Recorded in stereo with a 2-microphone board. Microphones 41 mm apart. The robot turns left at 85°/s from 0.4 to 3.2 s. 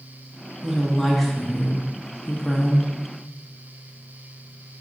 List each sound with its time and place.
0.6 s a woman speaking: 10° right (ahead or behind), 0.7 m; by 2.9 s 5° left (ahead or behind), 0.7 m